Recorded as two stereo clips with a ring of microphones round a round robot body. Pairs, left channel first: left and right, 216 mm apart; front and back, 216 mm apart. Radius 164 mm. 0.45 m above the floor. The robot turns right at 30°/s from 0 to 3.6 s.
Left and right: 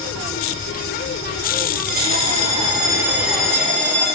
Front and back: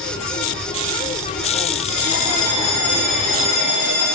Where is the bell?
45° right, 1.0 m; by 4.0 s 5° left, 1.0 m.